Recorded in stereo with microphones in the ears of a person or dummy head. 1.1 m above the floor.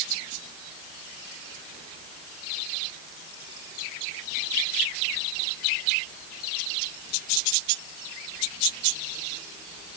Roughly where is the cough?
I don't hear a cough.